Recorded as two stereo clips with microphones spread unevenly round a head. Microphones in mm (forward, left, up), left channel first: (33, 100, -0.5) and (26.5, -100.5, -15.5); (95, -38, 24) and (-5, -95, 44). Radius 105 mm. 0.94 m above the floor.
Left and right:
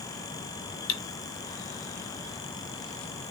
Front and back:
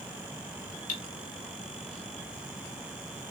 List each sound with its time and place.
0.9 s cutlery clinking: 65° left, 0.5 m